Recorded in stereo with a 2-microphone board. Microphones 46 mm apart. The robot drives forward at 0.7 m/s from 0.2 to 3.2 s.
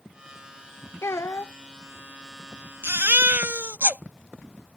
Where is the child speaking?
75° left (ahead or behind); by 1.5 s 65° left (ahead or behind).